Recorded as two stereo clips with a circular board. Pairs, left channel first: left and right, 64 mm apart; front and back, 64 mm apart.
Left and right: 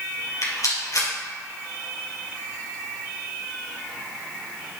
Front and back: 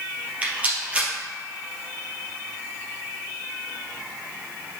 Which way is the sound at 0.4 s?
115° left.